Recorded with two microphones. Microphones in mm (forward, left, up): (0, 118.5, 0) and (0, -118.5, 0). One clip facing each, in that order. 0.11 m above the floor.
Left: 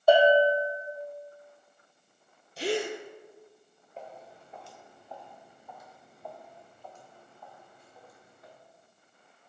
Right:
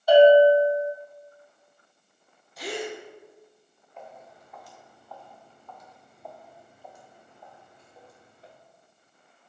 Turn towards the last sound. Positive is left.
turn(degrees=-30)  # may be behind; listen again after turning